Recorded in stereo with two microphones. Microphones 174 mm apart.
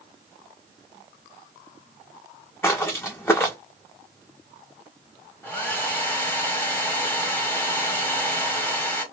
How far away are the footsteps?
About 0.7 m.